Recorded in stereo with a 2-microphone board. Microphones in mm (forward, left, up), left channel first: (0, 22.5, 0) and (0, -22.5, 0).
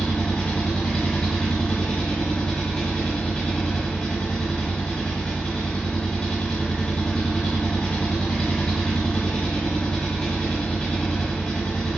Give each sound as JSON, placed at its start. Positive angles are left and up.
{"t": 0.0, "sound": "an engine running", "side_deg": 15, "distance_m": 1.4}